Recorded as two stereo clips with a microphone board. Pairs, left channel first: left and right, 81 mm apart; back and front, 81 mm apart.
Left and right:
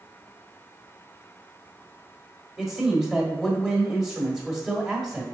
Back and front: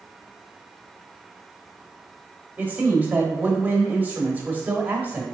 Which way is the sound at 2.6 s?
15° right.